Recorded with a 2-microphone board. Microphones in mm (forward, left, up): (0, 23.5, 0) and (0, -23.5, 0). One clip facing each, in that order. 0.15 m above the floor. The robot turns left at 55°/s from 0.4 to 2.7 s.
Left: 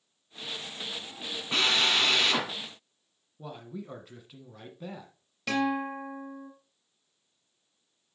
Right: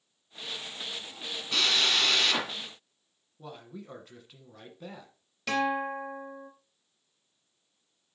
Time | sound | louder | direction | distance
1.5 | a drill | left 1 dB | 25° left (ahead or behind) | 1.7 m
3.4 | a man speaking | left 3 dB | 5° left (ahead or behind) | 1.4 m
5.5 | a guitar | even | centre (ahead or behind) | 3 m